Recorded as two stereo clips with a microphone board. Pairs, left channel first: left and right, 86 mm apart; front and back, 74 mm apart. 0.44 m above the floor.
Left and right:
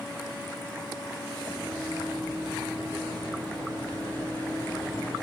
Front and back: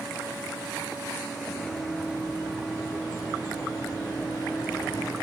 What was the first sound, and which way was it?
Running footsteps, 15° left.